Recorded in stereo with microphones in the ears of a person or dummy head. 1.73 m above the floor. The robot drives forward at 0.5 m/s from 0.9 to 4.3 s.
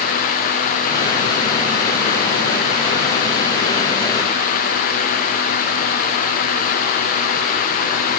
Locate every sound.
Only background noise.